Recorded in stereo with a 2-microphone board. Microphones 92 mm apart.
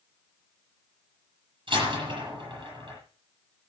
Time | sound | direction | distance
1.7 | a door slam | 55° right (ahead or behind) | 9.5 m